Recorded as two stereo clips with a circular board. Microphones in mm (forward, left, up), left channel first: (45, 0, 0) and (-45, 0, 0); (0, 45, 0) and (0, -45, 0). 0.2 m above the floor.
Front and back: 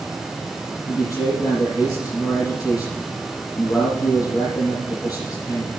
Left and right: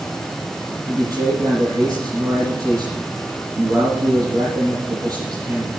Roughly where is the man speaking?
Ahead right.